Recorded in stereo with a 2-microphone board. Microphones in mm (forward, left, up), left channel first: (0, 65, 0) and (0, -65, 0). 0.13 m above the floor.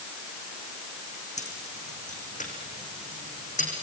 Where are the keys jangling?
65° left (ahead or behind), 5.5 m; by 3.7 s 80° left, 5.5 m.